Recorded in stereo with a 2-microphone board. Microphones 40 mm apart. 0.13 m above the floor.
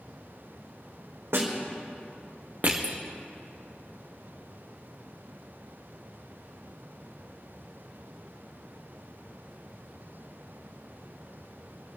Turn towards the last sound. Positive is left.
turn(degrees=-45)  # may be behind; listen again after turning